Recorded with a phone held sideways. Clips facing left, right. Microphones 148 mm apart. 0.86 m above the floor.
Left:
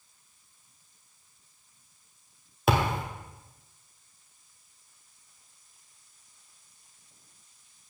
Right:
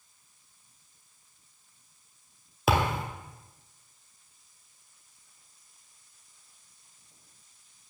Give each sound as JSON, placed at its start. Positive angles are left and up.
{"t": 2.7, "sound": "a thud", "side_deg": 0, "distance_m": 1.7}